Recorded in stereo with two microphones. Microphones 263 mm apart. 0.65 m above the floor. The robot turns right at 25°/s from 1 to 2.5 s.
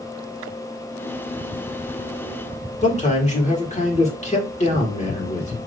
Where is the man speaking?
25° left (ahead or behind), 1.9 m.